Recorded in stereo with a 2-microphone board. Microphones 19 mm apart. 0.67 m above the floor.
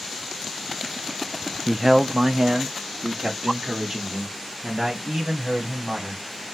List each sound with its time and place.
1.7 s a man speaking: 5° right (ahead or behind), 0.5 m; by 6.2 s 80° right, 3.5 m